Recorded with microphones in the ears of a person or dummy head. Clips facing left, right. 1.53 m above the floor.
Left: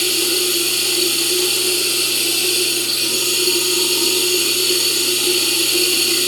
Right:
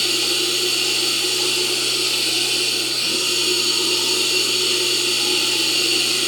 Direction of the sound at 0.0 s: 85° left.